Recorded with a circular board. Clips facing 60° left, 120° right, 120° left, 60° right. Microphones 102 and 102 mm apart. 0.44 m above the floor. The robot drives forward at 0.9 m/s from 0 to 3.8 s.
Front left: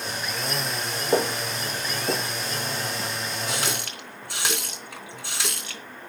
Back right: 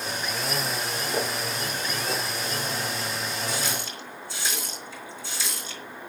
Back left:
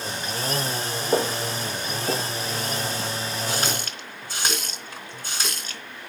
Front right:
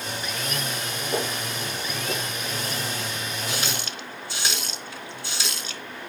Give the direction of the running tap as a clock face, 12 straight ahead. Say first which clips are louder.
Front left 1 dB, back left 3 dB; 10 o'clock.